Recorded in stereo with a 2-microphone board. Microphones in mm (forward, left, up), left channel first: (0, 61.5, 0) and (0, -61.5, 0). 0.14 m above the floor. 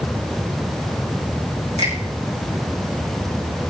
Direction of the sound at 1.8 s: 70° right (ahead or behind).